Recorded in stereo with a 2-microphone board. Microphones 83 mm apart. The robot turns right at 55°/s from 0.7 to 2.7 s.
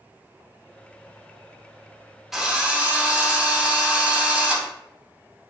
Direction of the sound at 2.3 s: 5° right (ahead or behind).